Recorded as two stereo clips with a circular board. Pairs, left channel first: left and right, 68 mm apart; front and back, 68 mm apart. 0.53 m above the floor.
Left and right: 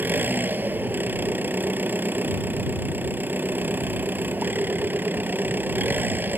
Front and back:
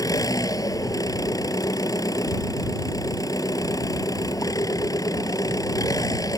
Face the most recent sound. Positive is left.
turn(degrees=-25)